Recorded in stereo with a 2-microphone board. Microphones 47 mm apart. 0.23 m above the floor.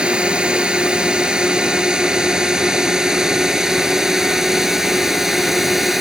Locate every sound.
0.0 s a drone: 20° right (ahead or behind); by 6.0 s 5° right (ahead or behind)